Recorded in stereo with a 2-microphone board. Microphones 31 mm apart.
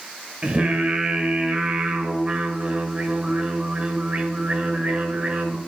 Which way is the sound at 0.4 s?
35° right (ahead or behind).